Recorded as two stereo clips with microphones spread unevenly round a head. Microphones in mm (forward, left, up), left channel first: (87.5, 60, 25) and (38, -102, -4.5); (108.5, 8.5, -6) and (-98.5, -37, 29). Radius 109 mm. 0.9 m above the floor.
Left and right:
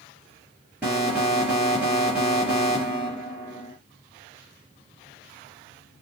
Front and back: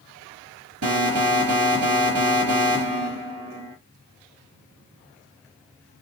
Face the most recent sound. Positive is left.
turn(degrees=170)